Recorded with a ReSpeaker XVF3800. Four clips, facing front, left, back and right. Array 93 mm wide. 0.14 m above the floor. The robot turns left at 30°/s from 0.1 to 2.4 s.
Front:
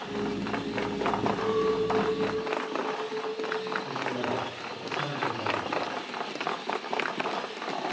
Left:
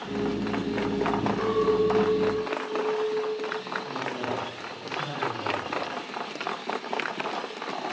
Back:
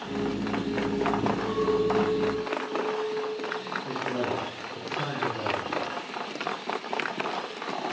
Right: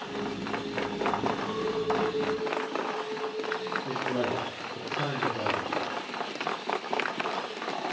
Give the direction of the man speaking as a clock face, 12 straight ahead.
4 o'clock.